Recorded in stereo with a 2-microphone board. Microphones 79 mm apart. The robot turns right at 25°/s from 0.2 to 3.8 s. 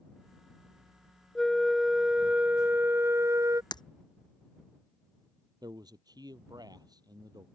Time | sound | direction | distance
1.4 | a flute | 175° left | ?
3.7 | breaking glass | 65° left (ahead or behind) | ?
5.6 | a man speaking | 55° right (ahead or behind) | ?